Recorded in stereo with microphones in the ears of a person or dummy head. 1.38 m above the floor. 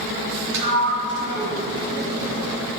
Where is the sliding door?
65° right (ahead or behind), 3.5 m.